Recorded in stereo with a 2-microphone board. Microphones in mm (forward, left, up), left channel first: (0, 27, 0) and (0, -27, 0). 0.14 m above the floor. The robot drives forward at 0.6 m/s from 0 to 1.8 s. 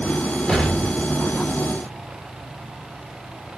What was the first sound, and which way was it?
An explosion, 10° left (ahead or behind).